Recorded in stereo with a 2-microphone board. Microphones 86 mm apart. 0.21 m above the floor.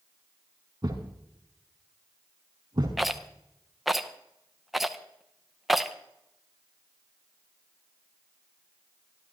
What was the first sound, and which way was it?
A thud, 45° right (ahead or behind).